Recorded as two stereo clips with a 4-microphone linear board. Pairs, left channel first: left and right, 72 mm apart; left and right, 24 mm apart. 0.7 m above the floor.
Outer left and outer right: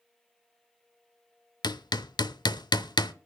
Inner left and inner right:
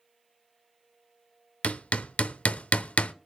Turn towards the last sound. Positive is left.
turn(degrees=80)